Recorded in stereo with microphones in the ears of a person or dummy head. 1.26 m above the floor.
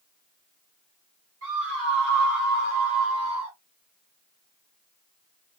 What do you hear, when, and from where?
1.4 s a scream: 70° right (ahead or behind), 2.5 m; by 3.6 s 25° right (ahead or behind), 2.0 m